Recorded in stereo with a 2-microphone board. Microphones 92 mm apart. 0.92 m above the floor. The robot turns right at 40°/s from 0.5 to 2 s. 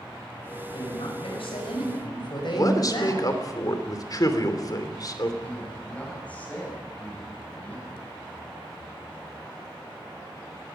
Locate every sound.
0.7 s a woman speaking: 70° left, 5.5 m; by 3.3 s 120° left, 5.5 m
2.5 s a man speaking: 45° left (ahead or behind), 3 m
5.4 s a man speaking: 15° left (ahead or behind), 6.5 m